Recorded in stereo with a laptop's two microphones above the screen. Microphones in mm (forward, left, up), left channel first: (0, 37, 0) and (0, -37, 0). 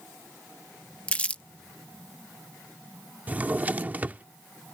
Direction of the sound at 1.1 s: 20° left (ahead or behind).